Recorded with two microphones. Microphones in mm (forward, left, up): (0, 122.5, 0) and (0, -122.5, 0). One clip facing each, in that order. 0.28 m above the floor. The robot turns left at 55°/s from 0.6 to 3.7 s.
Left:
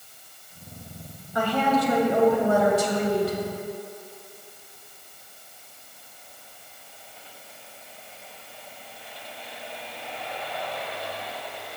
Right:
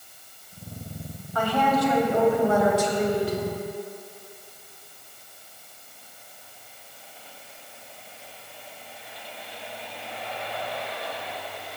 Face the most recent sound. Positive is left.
turn(degrees=25)